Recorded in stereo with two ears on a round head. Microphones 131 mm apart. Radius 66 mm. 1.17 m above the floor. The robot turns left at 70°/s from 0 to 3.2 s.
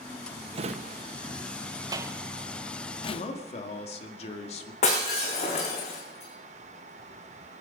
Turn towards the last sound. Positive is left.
turn(degrees=45)  # may be behind; listen again after turning